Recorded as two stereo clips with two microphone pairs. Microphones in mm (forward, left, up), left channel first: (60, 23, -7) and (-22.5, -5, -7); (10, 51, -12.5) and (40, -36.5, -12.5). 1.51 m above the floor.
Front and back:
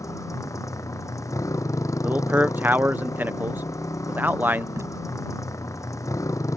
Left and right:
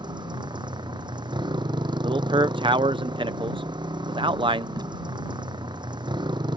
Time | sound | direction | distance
0.0 | a motorcycle | 35° right | ?
2.0 | a man speaking | 95° right | ?
4.8 | tape being pulled | 105° right | ?